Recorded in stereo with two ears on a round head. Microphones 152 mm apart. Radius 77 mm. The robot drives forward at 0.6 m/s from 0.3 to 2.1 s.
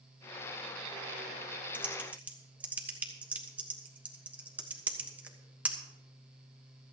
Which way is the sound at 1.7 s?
5° right (ahead or behind).